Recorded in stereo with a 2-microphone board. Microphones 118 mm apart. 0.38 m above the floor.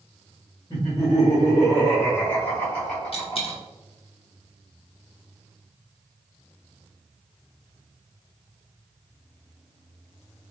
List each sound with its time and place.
0.7 s laughter: 30° left (ahead or behind), 1.1 m; by 3.6 s 5° left (ahead or behind), 2 m
3.1 s a dropped coin: 50° left (ahead or behind), 0.8 m